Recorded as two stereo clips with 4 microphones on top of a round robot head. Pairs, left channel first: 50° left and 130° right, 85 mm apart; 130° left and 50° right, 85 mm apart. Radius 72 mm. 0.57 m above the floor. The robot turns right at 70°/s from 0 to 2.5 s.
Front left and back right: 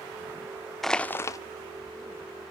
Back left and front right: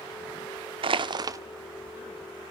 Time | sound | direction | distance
0.8 | crushing | 40° right | 0.5 m